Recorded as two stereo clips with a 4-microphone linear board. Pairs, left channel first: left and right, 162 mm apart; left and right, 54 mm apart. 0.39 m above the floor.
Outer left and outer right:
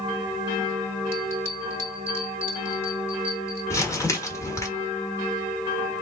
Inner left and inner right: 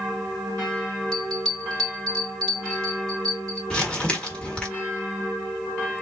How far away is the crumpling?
About 1.3 m.